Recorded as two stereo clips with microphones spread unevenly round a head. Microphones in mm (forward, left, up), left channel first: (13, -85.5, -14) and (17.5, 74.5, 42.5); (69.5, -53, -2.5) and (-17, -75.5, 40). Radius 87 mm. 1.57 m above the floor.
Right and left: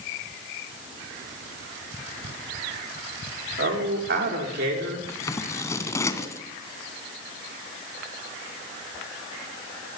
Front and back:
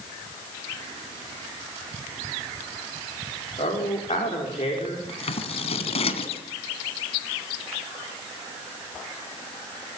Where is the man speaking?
65° left, 5.5 m.